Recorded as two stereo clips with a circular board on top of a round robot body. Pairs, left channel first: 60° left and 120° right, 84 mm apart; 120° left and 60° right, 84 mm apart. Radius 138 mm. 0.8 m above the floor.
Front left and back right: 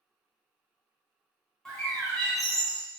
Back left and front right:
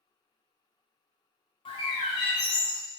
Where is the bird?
145° left, 0.6 m.